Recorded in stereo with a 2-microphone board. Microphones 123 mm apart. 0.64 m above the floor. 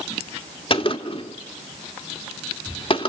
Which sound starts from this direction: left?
A gunshot, at 0.7 s.